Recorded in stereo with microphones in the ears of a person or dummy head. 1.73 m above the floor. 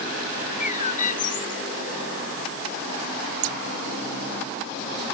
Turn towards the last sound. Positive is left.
turn(degrees=-65)  # may be behind; listen again after turning